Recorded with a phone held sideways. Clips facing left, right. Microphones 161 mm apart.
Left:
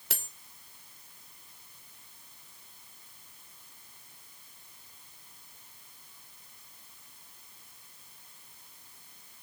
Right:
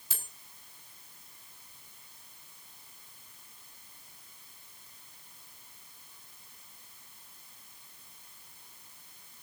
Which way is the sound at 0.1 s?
75° left (ahead or behind).